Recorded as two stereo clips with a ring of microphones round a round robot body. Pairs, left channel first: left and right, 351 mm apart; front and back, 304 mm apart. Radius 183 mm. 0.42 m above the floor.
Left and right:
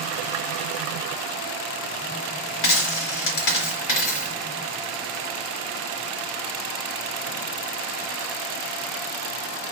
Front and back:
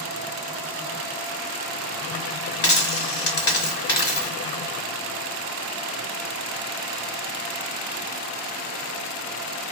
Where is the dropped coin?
50° left, 1.2 m.